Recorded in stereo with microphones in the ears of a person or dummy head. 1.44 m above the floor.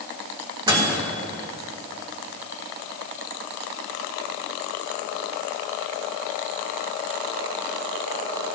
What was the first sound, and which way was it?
A microwave, 25° right (ahead or behind).